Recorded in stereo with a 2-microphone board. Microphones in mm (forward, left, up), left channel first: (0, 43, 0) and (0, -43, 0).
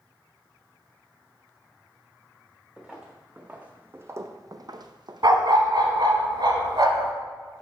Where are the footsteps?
5° right (ahead or behind), 1.2 m; by 6.1 s 50° right (ahead or behind), 1.1 m.